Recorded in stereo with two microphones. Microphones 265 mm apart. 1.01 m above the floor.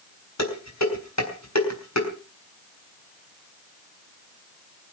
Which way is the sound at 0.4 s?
85° left.